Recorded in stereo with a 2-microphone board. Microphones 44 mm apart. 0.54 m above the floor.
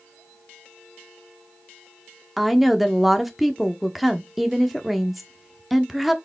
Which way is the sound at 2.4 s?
5° right (ahead or behind).